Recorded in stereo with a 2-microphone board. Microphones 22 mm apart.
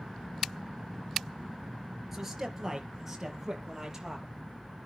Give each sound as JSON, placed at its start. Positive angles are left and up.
{"t": 2.1, "sound": "a man speaking", "side_deg": -5, "distance_m": 3.5}